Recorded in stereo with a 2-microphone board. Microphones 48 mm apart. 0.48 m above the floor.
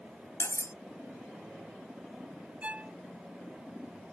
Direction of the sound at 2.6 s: 30° right (ahead or behind).